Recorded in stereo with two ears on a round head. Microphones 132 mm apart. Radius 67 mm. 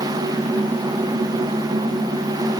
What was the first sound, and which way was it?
Only background noise.